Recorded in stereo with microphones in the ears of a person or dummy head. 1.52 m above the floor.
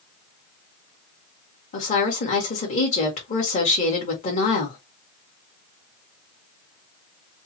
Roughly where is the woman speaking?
Left.